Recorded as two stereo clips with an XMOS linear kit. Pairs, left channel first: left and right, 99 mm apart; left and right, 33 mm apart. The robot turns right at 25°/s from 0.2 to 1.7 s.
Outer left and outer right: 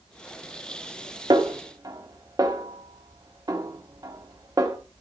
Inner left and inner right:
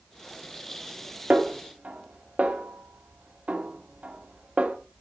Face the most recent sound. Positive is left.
turn(degrees=-40)  # may be behind; listen again after turning